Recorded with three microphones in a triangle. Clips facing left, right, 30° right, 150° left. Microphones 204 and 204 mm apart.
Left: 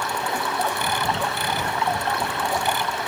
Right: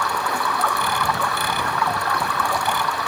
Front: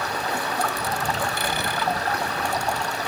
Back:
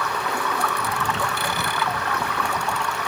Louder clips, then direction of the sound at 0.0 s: Right 1 dB, back 1 dB; 25° left.